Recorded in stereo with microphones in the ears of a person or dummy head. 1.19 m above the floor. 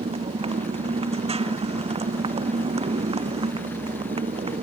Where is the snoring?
I don't hear snoring.